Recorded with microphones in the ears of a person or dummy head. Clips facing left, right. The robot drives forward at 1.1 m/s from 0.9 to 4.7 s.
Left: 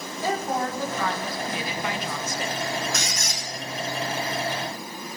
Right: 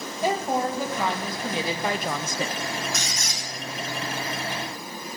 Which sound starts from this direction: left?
A squeak, at 2.9 s.